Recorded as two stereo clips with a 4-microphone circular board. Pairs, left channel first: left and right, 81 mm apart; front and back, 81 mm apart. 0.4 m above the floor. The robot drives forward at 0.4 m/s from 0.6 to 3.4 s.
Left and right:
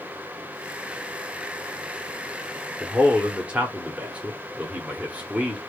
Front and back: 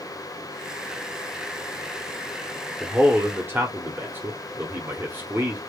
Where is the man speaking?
130° right, 0.9 m; by 5.6 s 150° right, 1.0 m.